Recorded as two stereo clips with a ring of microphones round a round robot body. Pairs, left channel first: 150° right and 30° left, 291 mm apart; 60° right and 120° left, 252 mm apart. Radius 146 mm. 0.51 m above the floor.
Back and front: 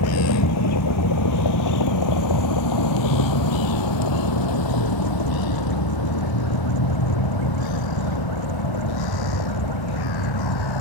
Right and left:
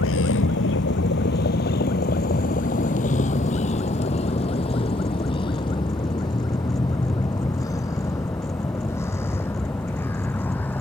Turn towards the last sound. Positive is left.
turn(degrees=-145)